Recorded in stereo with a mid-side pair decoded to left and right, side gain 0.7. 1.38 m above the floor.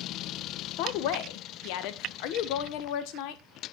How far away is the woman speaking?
About 1.2 m.